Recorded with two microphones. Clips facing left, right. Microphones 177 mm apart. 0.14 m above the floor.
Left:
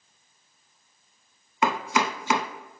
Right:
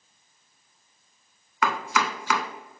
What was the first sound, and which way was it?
Chopping, 25° left (ahead or behind).